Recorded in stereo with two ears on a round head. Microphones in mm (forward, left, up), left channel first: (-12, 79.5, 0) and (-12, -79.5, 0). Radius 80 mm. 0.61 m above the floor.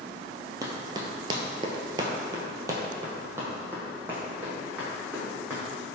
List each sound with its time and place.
0.6 s running footsteps: 20° right (ahead or behind), 0.8 m; by 5.8 s 5° right (ahead or behind), 2.5 m